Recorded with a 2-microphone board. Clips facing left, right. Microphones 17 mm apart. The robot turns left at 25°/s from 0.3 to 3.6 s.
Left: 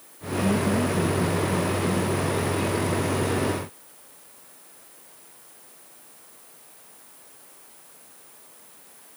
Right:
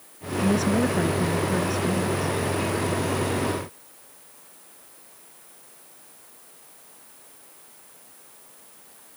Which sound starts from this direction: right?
A woman speaking, at 0.4 s.